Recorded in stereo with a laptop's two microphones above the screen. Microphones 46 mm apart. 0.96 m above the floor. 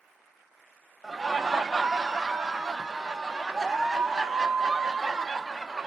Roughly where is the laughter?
Centre.